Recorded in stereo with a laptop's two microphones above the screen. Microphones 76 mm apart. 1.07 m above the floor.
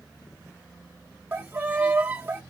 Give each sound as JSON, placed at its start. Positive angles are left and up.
{"t": 1.3, "sound": "a violin", "side_deg": -25, "distance_m": 0.6}